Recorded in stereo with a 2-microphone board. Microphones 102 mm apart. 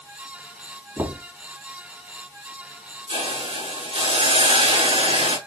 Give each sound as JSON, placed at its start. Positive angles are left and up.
{"t": 1.0, "sound": "knocking", "side_deg": -35, "distance_m": 3.0}
{"t": 3.1, "sound": "a hiss", "side_deg": -70, "distance_m": 7.0}